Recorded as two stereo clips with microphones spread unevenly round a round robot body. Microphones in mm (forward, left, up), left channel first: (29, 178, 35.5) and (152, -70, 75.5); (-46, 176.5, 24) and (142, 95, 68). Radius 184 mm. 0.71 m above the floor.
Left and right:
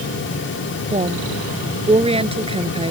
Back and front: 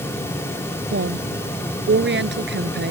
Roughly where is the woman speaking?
Ahead.